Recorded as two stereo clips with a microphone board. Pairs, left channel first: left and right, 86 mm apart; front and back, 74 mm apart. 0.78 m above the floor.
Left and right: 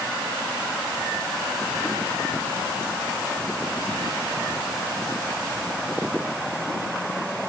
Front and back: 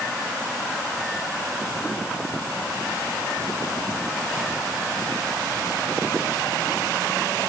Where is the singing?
No singing in this recording.